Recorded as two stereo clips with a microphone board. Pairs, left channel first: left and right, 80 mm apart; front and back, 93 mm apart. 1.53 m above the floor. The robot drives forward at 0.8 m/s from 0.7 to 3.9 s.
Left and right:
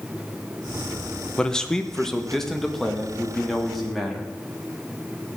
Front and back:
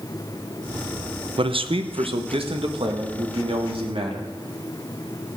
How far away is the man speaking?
About 0.8 m.